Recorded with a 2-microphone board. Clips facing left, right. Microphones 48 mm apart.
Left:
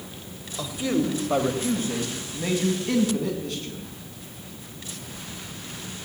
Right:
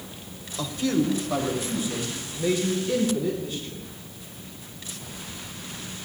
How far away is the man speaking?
About 1.8 m.